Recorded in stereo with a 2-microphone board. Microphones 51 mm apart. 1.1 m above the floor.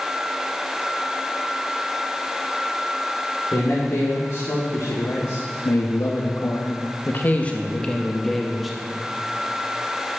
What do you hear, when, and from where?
3.5 s a man speaking: 70° left (ahead or behind), 3 m; by 8.8 s 5° right (ahead or behind), 1.9 m